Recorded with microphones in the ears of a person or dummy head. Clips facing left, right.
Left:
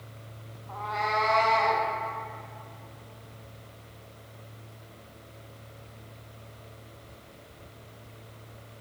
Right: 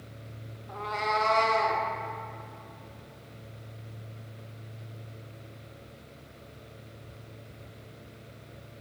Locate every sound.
0.7 s a cat meowing: 20° right (ahead or behind), 0.5 m; by 1.8 s 55° right (ahead or behind), 1.7 m